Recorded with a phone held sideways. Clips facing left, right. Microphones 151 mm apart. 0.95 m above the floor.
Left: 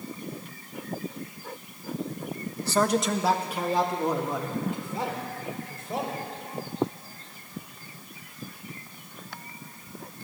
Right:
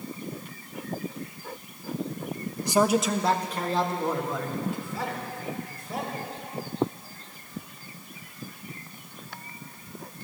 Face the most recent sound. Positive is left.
turn(degrees=25)  # may be behind; listen again after turning